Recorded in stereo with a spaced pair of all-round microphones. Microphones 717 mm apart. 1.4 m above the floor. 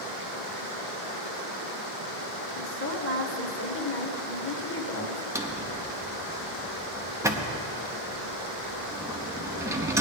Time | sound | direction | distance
2.5 | a woman speaking | 15° left (ahead or behind) | 1.2 m
5.3 | a drawer | 5° right (ahead or behind) | 0.8 m